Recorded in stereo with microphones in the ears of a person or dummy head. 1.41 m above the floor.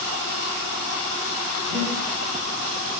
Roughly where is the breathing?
Right.